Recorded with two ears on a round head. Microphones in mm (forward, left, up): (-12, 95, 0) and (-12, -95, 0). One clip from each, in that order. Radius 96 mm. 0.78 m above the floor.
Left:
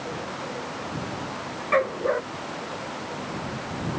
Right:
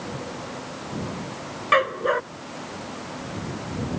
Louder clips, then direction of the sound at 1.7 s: Right 3 dB; 80° right.